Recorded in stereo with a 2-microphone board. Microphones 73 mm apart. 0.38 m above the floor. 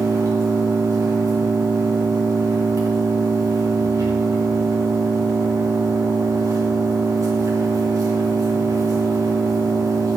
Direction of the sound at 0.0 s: 50° right (ahead or behind).